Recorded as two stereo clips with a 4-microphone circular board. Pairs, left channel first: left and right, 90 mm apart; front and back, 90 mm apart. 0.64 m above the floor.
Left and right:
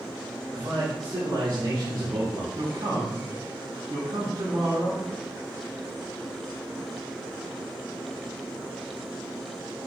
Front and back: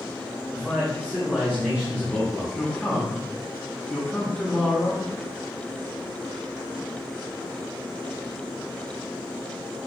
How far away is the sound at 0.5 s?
About 1.9 m.